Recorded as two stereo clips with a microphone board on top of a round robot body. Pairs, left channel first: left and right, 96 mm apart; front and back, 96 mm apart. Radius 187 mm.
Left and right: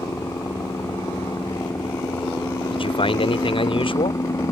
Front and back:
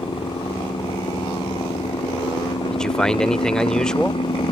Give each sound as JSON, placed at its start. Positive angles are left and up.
{"t": 0.0, "sound": "a helicopter", "azimuth_deg": 30}
{"t": 2.7, "sound": "a man speaking", "azimuth_deg": 85}